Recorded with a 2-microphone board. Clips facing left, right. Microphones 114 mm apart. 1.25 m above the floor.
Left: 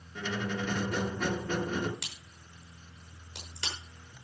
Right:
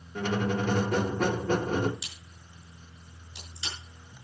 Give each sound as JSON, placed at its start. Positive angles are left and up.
{"t": 0.1, "sound": "a squeak", "side_deg": -50, "distance_m": 1.2}
{"t": 2.0, "sound": "a crack", "side_deg": 65, "distance_m": 6.0}